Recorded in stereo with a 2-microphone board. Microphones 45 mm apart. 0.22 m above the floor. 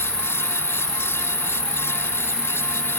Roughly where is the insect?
Left.